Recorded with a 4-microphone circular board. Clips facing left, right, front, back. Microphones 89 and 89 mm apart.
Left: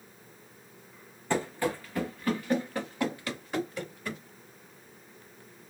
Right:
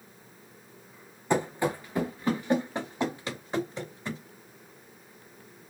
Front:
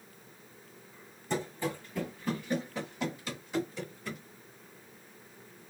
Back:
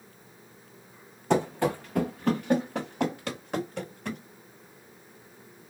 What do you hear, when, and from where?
1.3 s running footsteps: 165° right, 0.7 m; by 4.2 s 155° right, 2.5 m